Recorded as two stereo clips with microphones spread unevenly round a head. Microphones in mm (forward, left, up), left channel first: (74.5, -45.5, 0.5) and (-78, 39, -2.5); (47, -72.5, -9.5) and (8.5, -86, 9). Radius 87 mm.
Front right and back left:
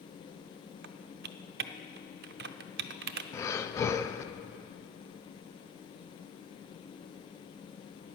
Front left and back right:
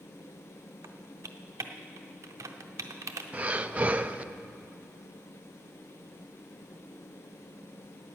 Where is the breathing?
105° right, 0.5 m.